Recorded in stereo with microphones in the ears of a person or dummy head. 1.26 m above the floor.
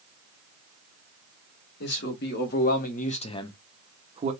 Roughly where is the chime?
No chime in this recording.